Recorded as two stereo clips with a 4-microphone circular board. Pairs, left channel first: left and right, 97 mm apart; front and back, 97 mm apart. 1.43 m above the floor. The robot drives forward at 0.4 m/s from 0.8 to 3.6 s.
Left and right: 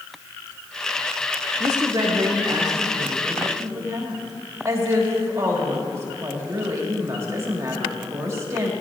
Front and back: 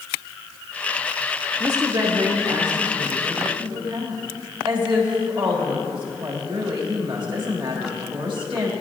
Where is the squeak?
No squeak in this recording.